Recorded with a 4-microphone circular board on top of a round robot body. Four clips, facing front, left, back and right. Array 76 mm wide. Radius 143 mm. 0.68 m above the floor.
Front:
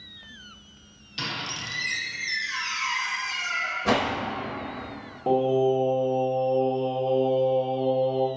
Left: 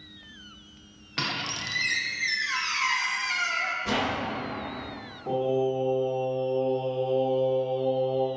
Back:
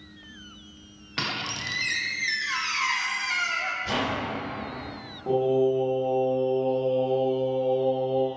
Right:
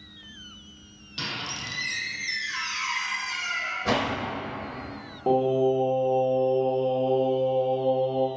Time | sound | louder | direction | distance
1.2 | a squeak | left 3 dB, back 2 dB | 140° left | 0.9 m
3.9 | a whoosh | right 4 dB, front 6 dB | 35° right | 0.7 m
5.3 | singing | right 4 dB, front 1 dB | 65° right | 1.4 m